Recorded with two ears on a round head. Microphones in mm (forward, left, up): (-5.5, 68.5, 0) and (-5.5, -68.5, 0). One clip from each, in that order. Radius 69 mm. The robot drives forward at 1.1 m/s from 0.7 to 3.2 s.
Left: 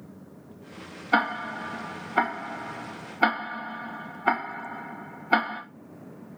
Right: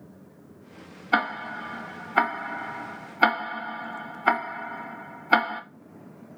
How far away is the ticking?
About 1.8 m.